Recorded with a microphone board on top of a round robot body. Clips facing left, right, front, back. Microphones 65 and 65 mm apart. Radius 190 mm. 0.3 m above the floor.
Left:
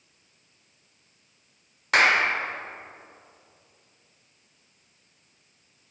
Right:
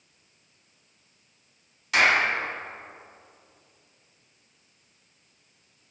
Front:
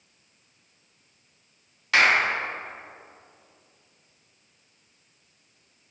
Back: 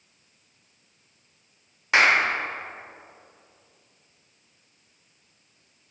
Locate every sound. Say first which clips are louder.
1.9 s a clap: left 1 dB, back 1 dB; 115° left, 1.6 m